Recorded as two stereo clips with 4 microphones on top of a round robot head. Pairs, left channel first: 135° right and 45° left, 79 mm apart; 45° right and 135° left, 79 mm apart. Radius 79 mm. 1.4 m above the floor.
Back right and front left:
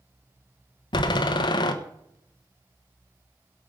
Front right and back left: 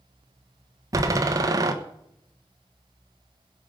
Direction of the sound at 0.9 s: 170° right.